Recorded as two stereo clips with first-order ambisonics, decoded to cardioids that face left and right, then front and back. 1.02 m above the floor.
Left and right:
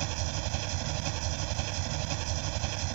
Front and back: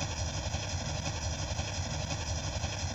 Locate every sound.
0.0 s an engine running: 95° right